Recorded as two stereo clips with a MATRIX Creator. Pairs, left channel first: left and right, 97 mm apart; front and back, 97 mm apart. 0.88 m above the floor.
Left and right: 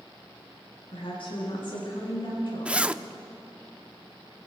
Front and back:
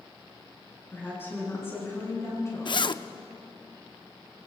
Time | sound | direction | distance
0.9 | a woman speaking | 70° left | 9.5 m
2.6 | a zipper | 15° right | 0.5 m